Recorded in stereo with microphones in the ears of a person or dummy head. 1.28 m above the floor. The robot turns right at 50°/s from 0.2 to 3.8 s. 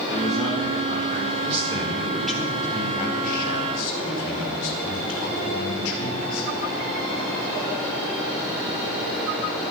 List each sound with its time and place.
0.1 s a man speaking: 175° left, 5 m; by 1.3 s 130° right, 5 m
1.4 s a man speaking: 40° right, 4.5 m; by 6.5 s 75° left, 4.5 m